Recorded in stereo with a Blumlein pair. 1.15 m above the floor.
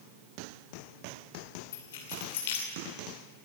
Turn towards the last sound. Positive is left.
turn(degrees=55)